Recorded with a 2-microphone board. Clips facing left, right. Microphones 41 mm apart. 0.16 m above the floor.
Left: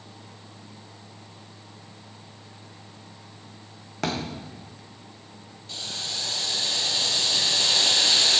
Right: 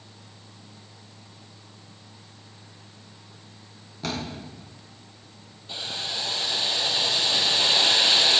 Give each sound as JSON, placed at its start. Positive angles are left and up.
{"t": 4.0, "sound": "a thud", "side_deg": 85, "distance_m": 3.5}
{"t": 5.7, "sound": "boiling", "side_deg": -20, "distance_m": 1.5}